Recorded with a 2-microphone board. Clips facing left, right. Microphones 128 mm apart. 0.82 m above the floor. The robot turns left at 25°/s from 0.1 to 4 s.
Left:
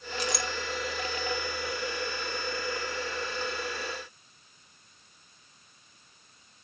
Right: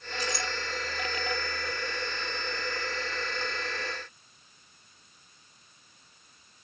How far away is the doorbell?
No doorbell in this recording.